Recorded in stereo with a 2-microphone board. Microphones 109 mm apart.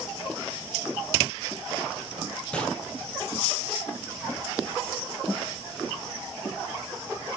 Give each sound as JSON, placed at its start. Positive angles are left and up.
{"t": 2.5, "sound": "a gunshot", "side_deg": 10, "distance_m": 2.5}